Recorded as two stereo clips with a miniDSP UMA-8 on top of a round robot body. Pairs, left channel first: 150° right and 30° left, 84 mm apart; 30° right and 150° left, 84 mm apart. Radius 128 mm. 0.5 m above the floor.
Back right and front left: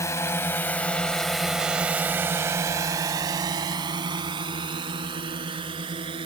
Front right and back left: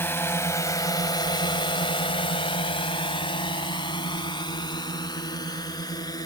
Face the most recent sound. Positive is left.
turn(degrees=15)